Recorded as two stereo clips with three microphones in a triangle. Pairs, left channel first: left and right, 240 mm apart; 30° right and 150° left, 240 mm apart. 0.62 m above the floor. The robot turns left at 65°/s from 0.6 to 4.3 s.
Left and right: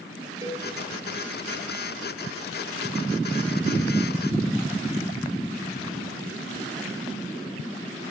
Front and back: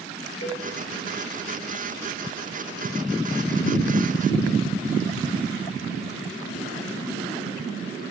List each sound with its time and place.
0.4 s a cowbell: 15° right, 3 m